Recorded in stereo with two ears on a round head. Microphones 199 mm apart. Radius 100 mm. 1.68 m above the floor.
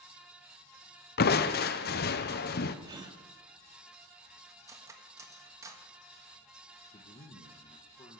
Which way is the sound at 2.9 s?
20° right (ahead or behind).